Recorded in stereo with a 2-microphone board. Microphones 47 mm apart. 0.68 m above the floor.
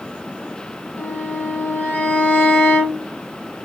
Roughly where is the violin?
Left.